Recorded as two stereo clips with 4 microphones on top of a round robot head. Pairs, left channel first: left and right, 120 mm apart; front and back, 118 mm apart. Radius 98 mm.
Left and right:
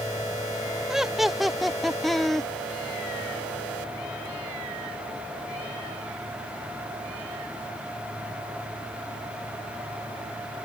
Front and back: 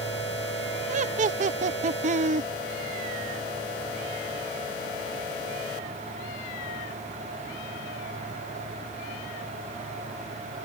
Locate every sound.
0.9 s laughter: 175° right; by 2.5 s straight behind